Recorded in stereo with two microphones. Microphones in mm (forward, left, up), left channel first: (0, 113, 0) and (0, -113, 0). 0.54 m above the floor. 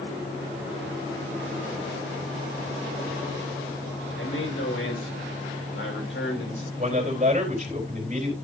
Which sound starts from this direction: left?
A man speaking, at 4.2 s.